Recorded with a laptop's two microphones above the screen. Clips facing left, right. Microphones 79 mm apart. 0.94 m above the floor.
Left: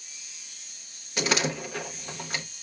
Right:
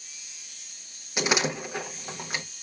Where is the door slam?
15° right (ahead or behind), 0.8 m.